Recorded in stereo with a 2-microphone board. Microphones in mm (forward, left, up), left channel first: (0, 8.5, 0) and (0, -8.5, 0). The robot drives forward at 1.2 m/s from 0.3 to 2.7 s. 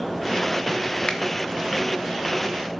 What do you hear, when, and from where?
1.1 s a finger snap: 50° left (ahead or behind), 1.0 m; by 1.2 s 55° left (ahead or behind), 1.0 m